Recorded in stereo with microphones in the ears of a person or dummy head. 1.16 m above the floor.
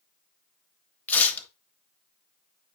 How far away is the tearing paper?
About 1.4 m.